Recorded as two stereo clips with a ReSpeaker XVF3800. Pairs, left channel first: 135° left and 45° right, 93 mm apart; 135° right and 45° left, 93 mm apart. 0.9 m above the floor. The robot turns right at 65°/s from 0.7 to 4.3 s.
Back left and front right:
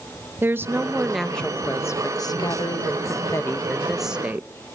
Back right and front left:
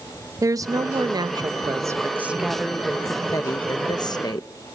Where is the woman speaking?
15° left, 0.6 m; by 4.5 s 115° right, 0.6 m.